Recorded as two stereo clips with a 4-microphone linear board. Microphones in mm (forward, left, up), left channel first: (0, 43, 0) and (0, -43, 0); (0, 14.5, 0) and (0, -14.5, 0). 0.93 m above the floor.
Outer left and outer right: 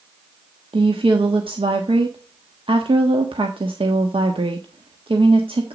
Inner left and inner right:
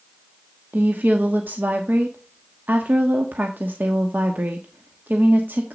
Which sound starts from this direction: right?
A woman speaking, at 0.7 s.